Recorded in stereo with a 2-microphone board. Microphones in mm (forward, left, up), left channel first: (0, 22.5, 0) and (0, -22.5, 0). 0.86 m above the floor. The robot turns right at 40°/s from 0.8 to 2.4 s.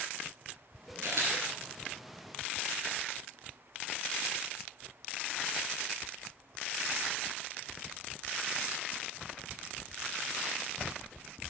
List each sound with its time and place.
1.0 s a camera shutter: 75° right (ahead or behind), 3.5 m; by 1.3 s 65° right (ahead or behind), 3.5 m